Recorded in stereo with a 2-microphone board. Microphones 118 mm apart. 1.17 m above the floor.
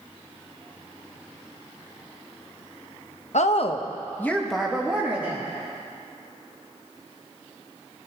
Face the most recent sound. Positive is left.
turn(degrees=-15)  # may be behind; listen again after turning